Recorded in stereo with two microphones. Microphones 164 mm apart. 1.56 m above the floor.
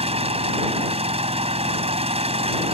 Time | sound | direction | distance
0.0 | an engine running | 40° right (ahead or behind) | ?